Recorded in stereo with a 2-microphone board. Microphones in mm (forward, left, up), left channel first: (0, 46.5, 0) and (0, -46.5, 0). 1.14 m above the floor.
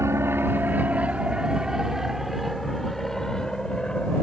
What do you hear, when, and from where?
0.0 s an aircraft: 30° right (ahead or behind); by 4.2 s 10° left (ahead or behind)